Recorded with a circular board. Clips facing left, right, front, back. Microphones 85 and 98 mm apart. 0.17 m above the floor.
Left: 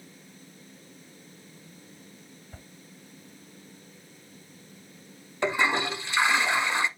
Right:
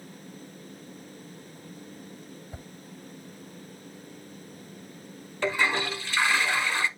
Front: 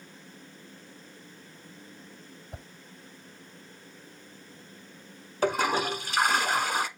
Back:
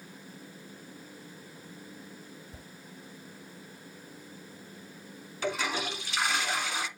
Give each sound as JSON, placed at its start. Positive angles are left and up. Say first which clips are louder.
{"t": 2.5, "sound": "a whoosh", "louder": "right 3 dB, front 4 dB", "azimuth_deg": -15, "distance_m": 0.5}
{"t": 5.4, "sound": "a toilet flushing", "louder": "left 1 dB, front 6 dB", "azimuth_deg": 25, "distance_m": 0.7}